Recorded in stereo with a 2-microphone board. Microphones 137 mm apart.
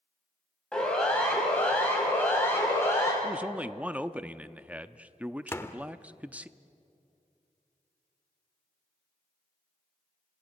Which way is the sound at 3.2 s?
10° right (ahead or behind).